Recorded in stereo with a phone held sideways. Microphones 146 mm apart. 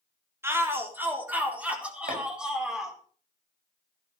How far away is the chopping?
About 6.5 m.